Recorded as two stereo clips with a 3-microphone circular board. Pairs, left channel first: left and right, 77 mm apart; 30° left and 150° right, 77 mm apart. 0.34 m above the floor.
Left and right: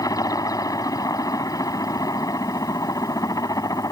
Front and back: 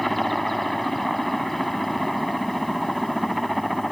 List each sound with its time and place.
0.0 s a helicopter: 120° left